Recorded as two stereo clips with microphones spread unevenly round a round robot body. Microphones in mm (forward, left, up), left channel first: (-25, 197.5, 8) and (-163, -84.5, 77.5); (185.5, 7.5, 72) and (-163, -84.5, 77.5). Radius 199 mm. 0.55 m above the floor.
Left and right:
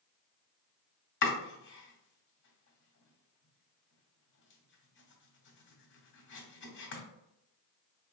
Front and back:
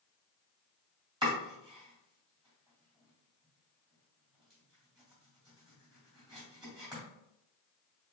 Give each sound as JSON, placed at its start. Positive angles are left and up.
{"t": 1.2, "sound": "chopping", "azimuth_deg": 115, "distance_m": 2.0}